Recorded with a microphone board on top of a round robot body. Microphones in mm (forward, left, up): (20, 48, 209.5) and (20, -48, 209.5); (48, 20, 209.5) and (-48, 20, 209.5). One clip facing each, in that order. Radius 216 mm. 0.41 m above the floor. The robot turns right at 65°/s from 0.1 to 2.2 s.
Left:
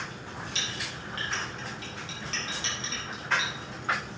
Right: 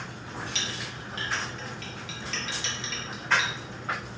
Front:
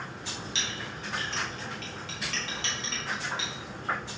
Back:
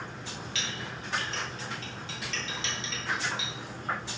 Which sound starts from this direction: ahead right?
A clink, at 0.6 s.